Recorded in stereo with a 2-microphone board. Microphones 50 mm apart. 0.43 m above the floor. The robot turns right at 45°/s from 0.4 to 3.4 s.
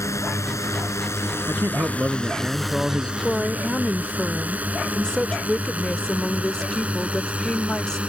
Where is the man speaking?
55° right; by 3.1 s 20° left.